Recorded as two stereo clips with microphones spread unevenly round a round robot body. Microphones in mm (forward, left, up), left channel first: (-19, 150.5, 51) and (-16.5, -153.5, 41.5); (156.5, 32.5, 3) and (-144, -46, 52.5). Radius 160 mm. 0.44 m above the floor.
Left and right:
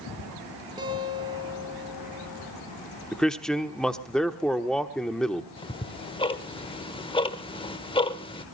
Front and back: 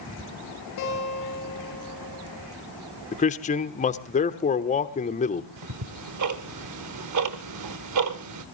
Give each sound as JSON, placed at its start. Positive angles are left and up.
{"t": 0.8, "sound": "a guitar", "azimuth_deg": -15, "distance_m": 7.5}
{"t": 3.1, "sound": "a man speaking", "azimuth_deg": 0, "distance_m": 1.1}
{"t": 5.6, "sound": "ticking", "azimuth_deg": 165, "distance_m": 1.3}